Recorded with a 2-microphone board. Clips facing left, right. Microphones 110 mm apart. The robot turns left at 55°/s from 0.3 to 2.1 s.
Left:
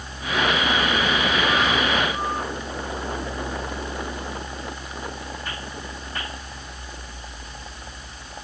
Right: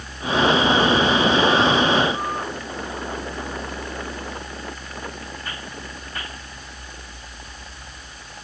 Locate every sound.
Only background noise.